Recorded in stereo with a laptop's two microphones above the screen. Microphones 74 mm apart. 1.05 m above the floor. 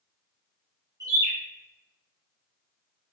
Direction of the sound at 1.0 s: 60° right (ahead or behind).